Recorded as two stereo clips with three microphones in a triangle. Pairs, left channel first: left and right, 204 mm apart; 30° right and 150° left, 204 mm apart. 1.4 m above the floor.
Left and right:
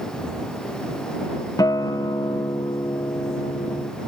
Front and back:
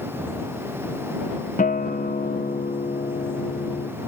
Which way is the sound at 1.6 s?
15° left.